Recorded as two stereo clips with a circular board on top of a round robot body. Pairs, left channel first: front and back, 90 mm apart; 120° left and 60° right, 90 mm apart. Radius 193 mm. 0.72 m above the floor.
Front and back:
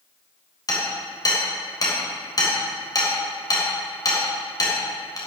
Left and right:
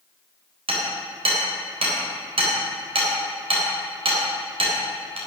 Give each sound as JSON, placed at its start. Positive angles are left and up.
{"t": 0.7, "sound": "hammering", "azimuth_deg": -50, "distance_m": 3.5}